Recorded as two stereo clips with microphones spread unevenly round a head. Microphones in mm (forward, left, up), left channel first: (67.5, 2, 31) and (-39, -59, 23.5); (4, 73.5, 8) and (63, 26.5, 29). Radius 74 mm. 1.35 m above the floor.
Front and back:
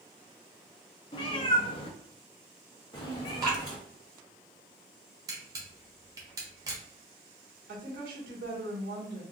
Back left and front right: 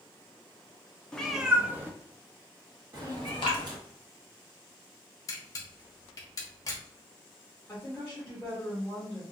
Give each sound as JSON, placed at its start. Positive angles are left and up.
{"t": 1.1, "sound": "a cat meowing", "azimuth_deg": 45, "distance_m": 0.6}
{"t": 3.4, "sound": "dripping", "azimuth_deg": 145, "distance_m": 1.2}
{"t": 5.3, "sound": "a camera shutter", "azimuth_deg": 170, "distance_m": 0.6}
{"t": 7.7, "sound": "a woman speaking", "azimuth_deg": -140, "distance_m": 1.6}